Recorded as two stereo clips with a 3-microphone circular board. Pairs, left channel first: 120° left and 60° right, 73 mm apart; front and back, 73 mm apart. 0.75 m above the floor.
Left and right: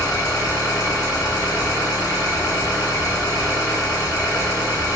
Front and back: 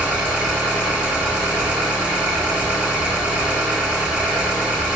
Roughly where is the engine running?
Left.